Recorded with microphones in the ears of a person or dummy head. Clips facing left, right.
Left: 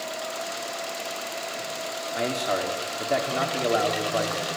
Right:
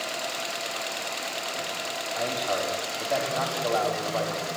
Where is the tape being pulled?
I don't hear tape being pulled.